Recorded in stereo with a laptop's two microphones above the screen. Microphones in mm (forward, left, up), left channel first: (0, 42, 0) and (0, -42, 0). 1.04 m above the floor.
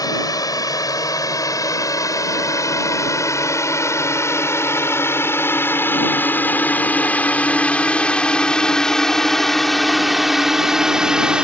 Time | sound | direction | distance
0.0 | a drone | 50° left (ahead or behind) | ?